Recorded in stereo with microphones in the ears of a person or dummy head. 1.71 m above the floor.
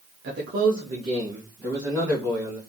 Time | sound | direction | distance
0.2 | a man speaking | 60° right (ahead or behind) | 0.6 m